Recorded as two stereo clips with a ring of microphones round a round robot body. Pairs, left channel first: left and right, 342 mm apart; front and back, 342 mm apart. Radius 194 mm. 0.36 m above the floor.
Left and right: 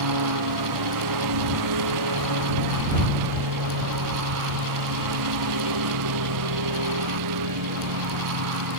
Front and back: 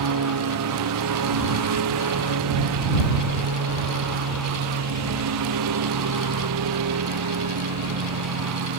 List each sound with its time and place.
0.0 s a lawn mower: 130° right